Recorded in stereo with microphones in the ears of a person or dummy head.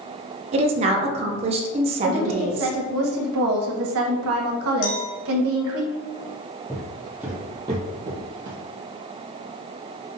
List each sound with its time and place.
0.5 s a woman speaking: 30° right (ahead or behind), 0.7 m
2.0 s a woman speaking: 70° right (ahead or behind), 1.0 m
4.8 s a clink: 70° left (ahead or behind), 1.2 m
6.7 s footsteps: 5° left (ahead or behind), 1.2 m; by 8.6 s 45° right (ahead or behind), 1.5 m